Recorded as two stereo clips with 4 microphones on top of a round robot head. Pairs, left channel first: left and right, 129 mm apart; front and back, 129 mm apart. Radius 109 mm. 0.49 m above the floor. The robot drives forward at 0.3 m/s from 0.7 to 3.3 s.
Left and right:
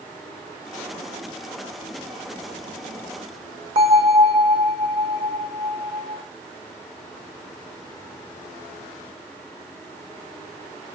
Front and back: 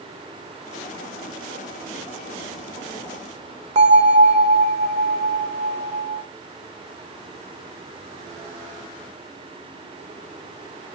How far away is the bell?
About 0.6 m.